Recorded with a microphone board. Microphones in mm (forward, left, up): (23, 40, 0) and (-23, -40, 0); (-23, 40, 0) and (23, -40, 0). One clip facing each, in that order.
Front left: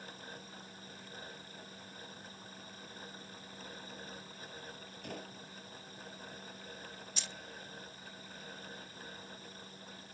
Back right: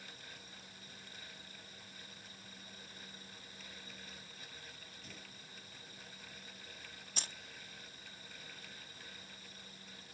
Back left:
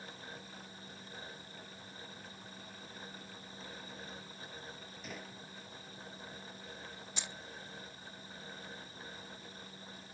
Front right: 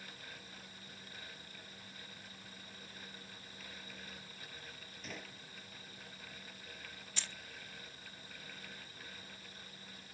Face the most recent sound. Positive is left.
turn(degrees=-170)